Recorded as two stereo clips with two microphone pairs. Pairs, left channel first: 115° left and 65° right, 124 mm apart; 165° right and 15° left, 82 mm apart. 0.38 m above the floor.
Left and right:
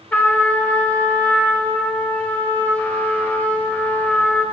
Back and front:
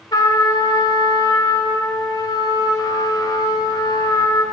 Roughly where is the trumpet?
Behind.